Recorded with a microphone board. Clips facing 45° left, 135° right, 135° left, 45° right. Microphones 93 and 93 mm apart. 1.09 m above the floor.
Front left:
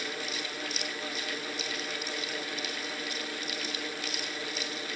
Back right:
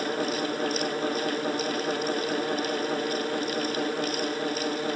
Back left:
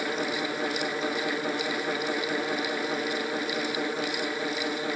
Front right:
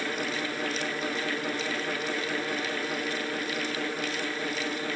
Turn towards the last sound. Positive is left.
No sound to turn to.